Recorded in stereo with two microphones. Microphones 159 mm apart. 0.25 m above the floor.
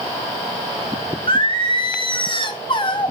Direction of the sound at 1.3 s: 35° left (ahead or behind).